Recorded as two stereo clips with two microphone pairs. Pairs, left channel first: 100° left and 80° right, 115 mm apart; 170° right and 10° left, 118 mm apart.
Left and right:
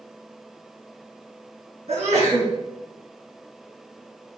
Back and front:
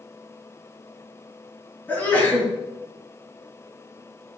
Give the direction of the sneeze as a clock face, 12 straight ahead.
3 o'clock.